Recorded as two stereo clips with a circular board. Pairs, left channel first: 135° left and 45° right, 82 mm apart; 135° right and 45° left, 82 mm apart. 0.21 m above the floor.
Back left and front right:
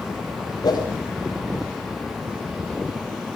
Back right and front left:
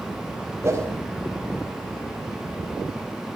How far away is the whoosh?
About 6.5 m.